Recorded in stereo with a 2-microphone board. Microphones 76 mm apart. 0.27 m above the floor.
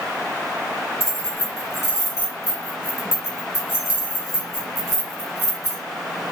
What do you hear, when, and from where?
1.0 s keys jangling: 45° left (ahead or behind), 2.5 m